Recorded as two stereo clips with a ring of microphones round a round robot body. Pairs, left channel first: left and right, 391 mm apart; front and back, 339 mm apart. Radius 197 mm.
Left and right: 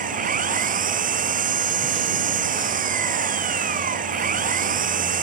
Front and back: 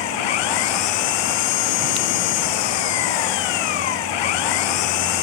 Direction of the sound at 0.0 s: 20° right.